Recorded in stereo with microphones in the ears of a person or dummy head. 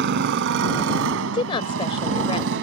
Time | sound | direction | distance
0.0 | a motorcycle | 60° right (ahead or behind) | ?
1.3 | a woman speaking | 30° left (ahead or behind) | ?